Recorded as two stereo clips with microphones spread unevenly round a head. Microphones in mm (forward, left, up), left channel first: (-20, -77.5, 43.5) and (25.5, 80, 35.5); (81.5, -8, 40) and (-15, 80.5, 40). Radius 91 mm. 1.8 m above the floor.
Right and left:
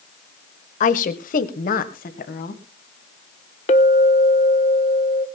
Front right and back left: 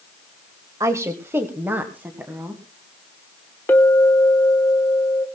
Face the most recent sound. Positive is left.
turn(degrees=-115)